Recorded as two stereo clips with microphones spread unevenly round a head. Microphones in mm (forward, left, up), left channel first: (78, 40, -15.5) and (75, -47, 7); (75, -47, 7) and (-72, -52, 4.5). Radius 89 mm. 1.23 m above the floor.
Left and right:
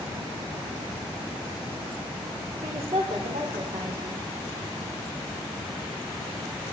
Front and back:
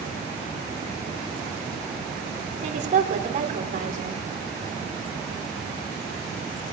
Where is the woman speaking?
140° right, 4.5 m.